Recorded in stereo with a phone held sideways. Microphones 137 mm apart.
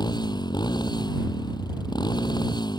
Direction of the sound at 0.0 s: 30° left (ahead or behind).